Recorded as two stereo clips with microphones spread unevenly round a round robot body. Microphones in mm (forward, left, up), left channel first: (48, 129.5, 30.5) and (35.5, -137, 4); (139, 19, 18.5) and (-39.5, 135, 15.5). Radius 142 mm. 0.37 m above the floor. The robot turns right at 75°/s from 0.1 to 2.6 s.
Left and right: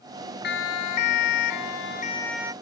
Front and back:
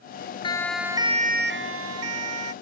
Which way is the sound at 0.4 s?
35° left.